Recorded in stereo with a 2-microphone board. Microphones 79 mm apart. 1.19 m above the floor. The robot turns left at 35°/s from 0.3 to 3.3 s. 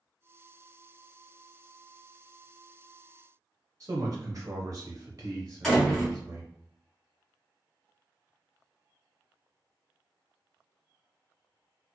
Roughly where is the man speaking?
Right.